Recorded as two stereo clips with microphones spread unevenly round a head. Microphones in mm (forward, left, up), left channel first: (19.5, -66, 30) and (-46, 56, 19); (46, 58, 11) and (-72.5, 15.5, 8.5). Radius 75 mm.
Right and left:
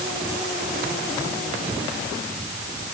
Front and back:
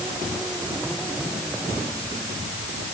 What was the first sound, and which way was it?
Only background noise.